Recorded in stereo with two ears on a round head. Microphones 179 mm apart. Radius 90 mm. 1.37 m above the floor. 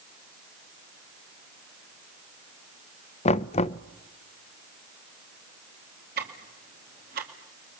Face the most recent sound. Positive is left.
turn(degrees=-45)  # may be behind; listen again after turning